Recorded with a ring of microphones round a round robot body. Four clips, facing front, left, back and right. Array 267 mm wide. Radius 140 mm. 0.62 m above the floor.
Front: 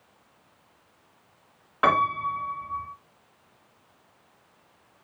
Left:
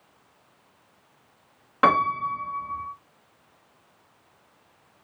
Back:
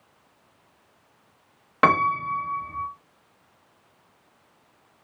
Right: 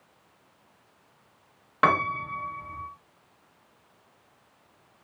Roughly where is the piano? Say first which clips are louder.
Left 3 dB, back 2 dB; behind.